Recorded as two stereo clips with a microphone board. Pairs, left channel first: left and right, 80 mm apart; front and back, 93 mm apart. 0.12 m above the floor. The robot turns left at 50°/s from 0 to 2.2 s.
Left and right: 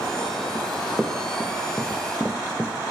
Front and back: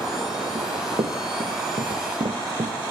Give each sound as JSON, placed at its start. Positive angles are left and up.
{"t": 0.6, "sound": "running footsteps", "azimuth_deg": -160, "distance_m": 2.5}